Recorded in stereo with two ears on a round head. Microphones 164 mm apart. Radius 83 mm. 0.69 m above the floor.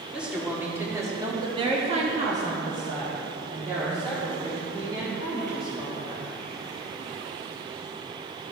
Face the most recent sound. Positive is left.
turn(degrees=-30)  # may be behind; listen again after turning